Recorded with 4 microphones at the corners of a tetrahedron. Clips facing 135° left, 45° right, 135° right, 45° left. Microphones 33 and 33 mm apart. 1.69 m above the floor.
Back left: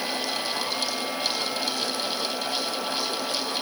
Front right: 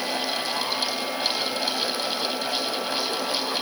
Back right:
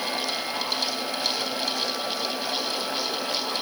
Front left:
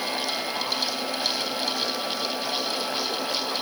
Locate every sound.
Only background noise.